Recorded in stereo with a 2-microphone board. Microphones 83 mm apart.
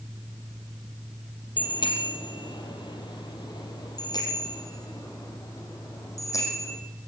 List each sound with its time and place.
1.6 s a bicycle bell: 75° left (ahead or behind), 3.5 m; by 6.8 s 40° left (ahead or behind), 6 m